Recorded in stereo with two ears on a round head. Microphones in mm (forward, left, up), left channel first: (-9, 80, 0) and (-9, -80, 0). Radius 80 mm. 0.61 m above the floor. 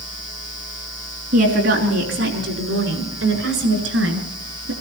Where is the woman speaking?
50° right (ahead or behind), 5.5 m; by 4.7 s 75° right (ahead or behind), 7 m.